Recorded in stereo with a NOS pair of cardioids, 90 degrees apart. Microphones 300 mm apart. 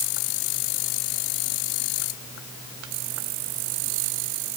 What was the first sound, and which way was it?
Only background noise.